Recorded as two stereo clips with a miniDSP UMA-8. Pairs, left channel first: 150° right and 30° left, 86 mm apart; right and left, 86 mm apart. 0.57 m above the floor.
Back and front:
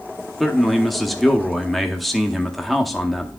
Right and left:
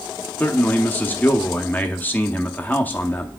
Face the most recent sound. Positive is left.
turn(degrees=-65)